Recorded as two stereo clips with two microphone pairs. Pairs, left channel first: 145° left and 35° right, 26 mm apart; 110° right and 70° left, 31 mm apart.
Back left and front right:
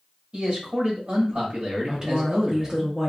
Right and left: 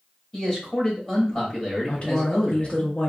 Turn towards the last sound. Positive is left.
turn(degrees=-95)